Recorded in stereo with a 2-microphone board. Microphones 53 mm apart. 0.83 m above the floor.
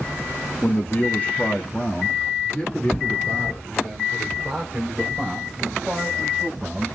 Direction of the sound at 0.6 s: 35° left (ahead or behind).